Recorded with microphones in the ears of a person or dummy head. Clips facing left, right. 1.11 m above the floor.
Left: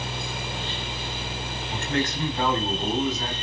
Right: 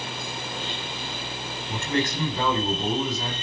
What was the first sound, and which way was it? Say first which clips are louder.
A fan: left 1 dB; 20° left (ahead or behind).